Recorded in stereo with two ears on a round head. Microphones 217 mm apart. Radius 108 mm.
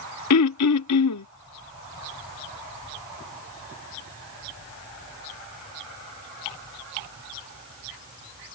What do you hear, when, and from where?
0.3 s throat clearing: 75° left (ahead or behind)